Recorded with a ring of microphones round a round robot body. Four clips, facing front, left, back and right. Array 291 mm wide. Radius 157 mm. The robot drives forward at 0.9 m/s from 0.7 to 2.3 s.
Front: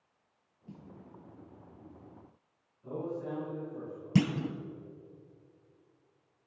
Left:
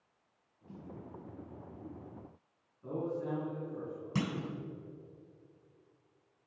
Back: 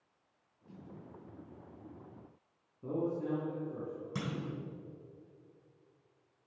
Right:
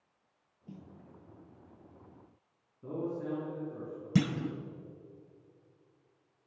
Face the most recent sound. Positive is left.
turn(degrees=-35)